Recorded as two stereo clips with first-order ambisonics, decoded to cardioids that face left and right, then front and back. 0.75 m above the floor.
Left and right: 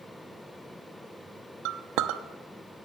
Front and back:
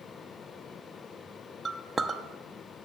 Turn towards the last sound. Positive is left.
turn(degrees=-105)